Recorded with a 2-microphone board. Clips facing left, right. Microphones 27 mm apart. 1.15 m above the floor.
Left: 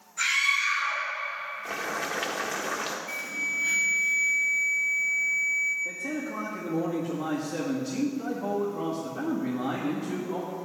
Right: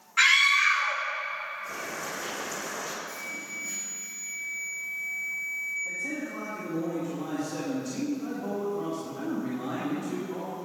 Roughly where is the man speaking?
Left.